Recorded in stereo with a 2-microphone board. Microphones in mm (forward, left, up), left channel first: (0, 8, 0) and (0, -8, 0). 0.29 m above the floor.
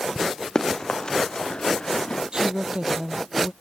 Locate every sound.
0.6 s running footsteps: 40° left (ahead or behind); by 2.2 s 70° left (ahead or behind)
2.3 s a woman speaking: 70° right (ahead or behind)